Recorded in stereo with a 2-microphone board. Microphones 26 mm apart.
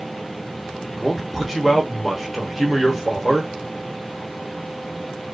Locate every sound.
0.9 s a man speaking: 5° right (ahead or behind), 0.9 m